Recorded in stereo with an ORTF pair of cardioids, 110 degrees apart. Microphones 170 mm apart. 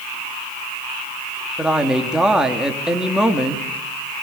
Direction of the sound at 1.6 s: 5° right.